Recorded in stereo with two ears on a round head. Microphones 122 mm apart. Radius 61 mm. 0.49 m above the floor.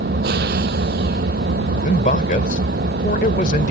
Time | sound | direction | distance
0.0 | an engine running | 85° right | ?
1.8 | a man speaking | 60° left (ahead or behind) | ?